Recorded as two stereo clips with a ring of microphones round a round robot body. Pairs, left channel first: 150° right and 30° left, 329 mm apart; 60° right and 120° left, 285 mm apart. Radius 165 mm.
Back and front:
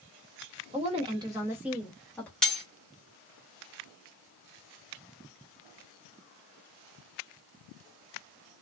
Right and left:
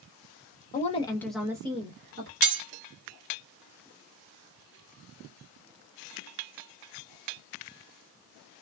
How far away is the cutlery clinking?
About 1.0 m.